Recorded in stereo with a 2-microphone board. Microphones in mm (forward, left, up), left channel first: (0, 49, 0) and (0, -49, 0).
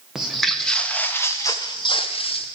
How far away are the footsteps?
About 1.3 m.